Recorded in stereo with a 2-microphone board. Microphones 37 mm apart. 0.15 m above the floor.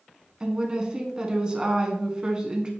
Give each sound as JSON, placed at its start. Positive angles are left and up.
{"t": 0.4, "sound": "a woman speaking", "side_deg": -20, "distance_m": 1.4}